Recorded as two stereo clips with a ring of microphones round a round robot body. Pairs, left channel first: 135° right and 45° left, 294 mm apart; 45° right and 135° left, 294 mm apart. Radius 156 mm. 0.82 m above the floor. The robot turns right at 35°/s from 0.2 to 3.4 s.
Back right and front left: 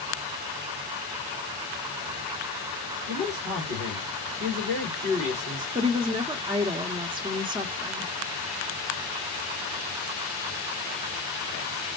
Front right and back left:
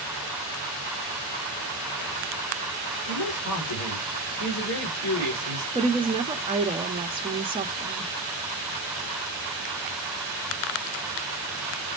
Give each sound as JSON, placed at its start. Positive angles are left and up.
{"t": 3.1, "sound": "a man speaking", "azimuth_deg": -20, "distance_m": 2.5}
{"t": 5.8, "sound": "a woman speaking", "azimuth_deg": 95, "distance_m": 1.0}